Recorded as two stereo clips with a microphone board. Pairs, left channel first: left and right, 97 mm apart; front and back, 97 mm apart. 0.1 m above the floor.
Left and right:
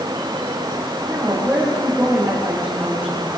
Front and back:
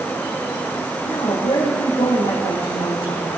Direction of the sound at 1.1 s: 15° right.